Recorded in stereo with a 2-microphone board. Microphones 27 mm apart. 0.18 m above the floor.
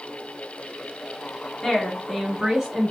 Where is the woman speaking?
25° left (ahead or behind), 1.2 m; by 2.9 s 20° right (ahead or behind), 1.2 m.